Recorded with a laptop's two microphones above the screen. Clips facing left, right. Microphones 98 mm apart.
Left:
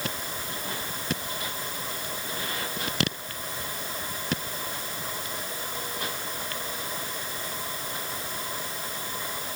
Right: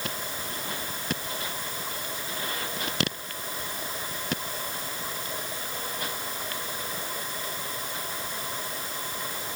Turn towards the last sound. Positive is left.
No sound to turn to.